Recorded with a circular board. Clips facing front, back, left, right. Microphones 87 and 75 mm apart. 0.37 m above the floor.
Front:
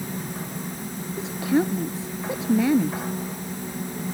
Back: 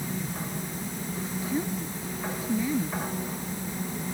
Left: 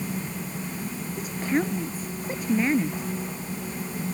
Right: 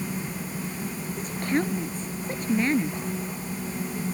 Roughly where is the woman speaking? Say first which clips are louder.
Front 9 dB, left 1 dB; ahead.